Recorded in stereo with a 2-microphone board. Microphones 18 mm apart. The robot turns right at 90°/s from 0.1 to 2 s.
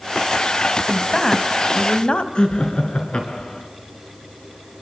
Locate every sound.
0.9 s a woman speaking: 10° right, 1.8 m; by 2.2 s 90° left, 1.8 m
2.4 s laughter: 70° left (ahead or behind), 4.5 m